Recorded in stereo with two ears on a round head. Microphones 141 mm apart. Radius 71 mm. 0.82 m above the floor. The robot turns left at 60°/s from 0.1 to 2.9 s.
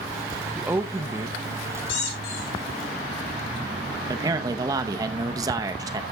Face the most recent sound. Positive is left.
turn(degrees=-20)  # may be behind; listen again after turning